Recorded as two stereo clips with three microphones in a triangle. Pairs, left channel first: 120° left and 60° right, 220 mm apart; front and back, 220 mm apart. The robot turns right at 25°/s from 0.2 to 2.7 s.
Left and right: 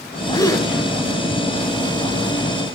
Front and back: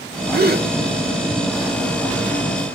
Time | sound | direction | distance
0.3 | a gasp | straight behind | 0.9 m